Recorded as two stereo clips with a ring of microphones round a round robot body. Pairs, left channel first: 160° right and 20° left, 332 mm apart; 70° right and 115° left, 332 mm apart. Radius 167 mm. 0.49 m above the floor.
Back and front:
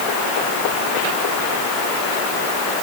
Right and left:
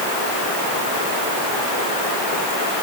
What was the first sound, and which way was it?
Only background noise.